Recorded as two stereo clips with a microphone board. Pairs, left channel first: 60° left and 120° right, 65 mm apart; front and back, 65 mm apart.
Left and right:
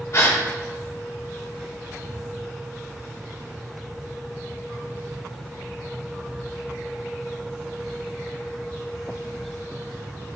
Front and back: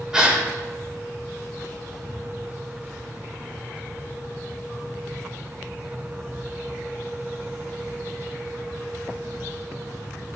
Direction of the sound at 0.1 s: 100° left.